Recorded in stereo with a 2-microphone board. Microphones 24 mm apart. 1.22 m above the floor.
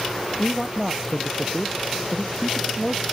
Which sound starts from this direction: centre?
A man speaking, at 0.4 s.